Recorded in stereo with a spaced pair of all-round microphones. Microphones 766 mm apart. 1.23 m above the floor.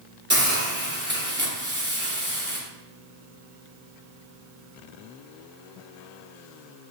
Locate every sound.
0.3 s a hiss: 15° right (ahead or behind), 0.8 m